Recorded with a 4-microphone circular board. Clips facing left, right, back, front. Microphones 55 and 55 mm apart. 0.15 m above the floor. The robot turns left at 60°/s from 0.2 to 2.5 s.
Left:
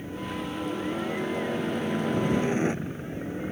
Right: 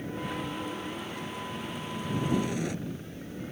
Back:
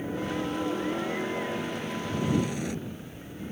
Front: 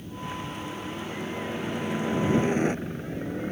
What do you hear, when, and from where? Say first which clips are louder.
0.0 s a helicopter: left 1 dB, back 5 dB; 175° right; by 3.5 s 40° left